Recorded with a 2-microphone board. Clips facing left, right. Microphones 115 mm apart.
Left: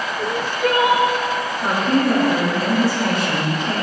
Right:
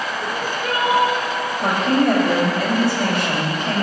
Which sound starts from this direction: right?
A woman speaking, at 1.6 s.